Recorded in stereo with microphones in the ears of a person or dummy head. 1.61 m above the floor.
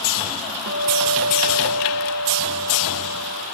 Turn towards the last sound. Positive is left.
turn(degrees=-70)  # may be behind; listen again after turning